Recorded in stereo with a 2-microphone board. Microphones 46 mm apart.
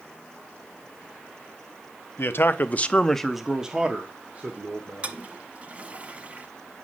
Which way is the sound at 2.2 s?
60° left (ahead or behind).